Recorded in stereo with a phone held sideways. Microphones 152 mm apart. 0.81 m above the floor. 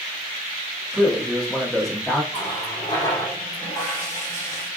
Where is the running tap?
20° left (ahead or behind), 1.5 m.